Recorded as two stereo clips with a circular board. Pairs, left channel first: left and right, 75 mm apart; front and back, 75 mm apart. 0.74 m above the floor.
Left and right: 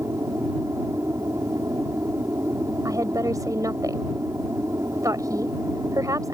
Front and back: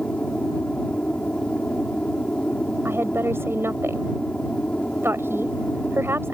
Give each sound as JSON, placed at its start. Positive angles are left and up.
{"t": 0.0, "sound": "an aircraft", "azimuth_deg": -70}
{"t": 2.9, "sound": "a woman speaking", "azimuth_deg": -125}